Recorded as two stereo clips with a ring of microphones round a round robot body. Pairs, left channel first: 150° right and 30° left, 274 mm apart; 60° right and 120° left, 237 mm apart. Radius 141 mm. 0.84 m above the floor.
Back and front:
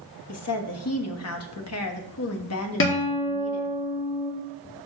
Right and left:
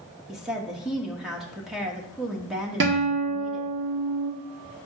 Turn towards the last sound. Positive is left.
turn(degrees=165)